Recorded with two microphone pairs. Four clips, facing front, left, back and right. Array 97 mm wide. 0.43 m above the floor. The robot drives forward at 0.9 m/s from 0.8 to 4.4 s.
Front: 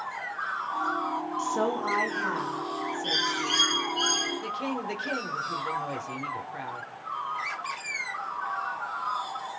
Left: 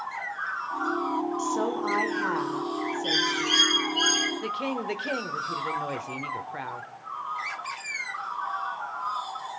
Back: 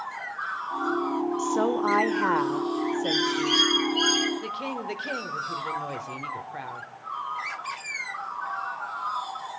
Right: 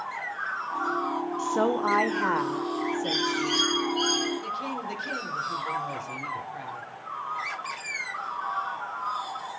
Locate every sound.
1.4 s a woman speaking: 80° right, 0.8 m; by 3.7 s 170° right, 2 m
3.0 s a bird: 80° left, 1.4 m; by 4.3 s 125° left, 1.7 m
4.4 s a woman speaking: 100° left, 1.4 m